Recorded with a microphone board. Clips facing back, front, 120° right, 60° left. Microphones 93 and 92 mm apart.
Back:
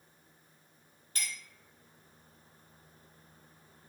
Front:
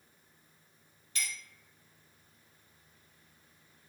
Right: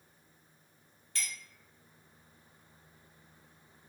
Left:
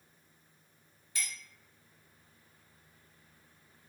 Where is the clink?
140° left, 1.2 m.